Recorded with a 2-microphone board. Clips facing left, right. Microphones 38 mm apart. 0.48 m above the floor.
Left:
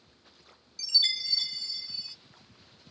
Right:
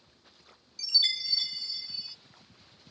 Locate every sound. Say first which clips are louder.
0.8 s a chime: even; 5° right (ahead or behind), 1.0 m